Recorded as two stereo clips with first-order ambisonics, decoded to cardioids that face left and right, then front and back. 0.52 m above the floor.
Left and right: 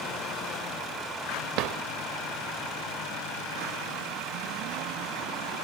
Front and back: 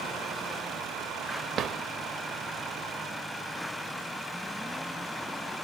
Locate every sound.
1.6 s a drawer: 120° right, 0.7 m